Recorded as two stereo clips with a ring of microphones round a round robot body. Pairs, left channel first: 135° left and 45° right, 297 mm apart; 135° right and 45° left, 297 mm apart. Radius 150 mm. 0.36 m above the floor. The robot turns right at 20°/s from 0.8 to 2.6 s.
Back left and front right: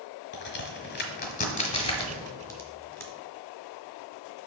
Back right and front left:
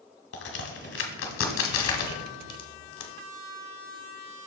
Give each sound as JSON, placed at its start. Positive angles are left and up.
{"t": 0.3, "sound": "a crack", "azimuth_deg": 180, "distance_m": 1.3}